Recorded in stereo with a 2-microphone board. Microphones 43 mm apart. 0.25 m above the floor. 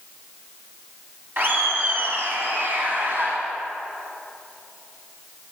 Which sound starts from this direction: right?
Laughter, at 1.4 s.